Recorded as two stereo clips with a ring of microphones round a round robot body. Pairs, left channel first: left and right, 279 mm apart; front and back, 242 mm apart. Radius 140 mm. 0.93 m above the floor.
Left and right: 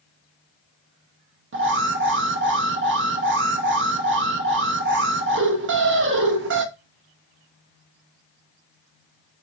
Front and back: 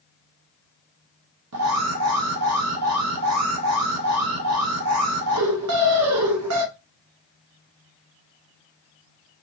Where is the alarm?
140° right, 0.8 m.